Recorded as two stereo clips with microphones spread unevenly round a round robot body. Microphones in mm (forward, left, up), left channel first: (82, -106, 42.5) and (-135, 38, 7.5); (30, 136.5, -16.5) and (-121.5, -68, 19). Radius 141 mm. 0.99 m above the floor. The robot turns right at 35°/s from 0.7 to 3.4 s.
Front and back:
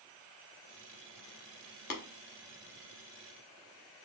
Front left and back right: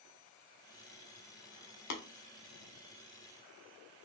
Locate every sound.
1.9 s tapping: 20° left, 0.8 m; by 2.0 s 25° left, 0.8 m